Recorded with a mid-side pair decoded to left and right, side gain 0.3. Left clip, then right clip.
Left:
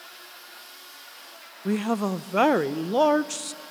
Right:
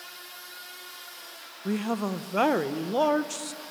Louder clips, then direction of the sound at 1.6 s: Left 3 dB; 45° left.